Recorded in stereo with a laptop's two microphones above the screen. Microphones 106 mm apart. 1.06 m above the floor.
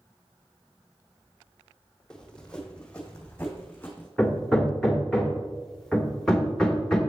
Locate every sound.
2.1 s running footsteps: 5° left (ahead or behind), 1.9 m; by 4.1 s 15° left (ahead or behind), 3 m
4.2 s hammering: 5° left (ahead or behind), 1.7 m